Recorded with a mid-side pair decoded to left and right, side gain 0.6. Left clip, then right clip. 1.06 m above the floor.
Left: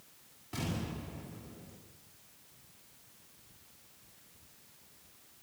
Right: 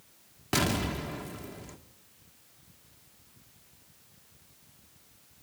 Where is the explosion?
70° right, 1.8 m.